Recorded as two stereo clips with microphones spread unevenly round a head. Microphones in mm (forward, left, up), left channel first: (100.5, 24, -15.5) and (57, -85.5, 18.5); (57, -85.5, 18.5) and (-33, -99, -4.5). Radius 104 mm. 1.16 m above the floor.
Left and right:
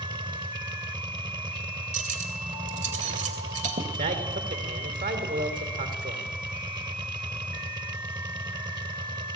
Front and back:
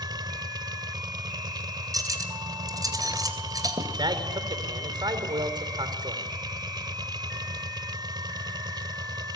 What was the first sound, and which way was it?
A machine running, 130° right.